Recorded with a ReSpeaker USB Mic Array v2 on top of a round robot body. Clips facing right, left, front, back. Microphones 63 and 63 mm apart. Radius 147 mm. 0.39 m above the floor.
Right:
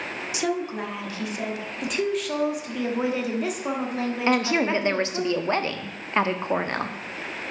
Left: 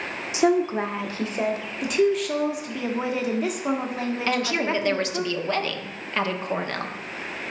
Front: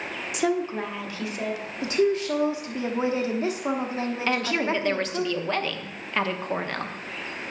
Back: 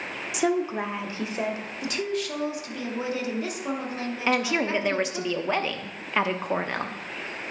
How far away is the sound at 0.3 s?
About 1.0 m.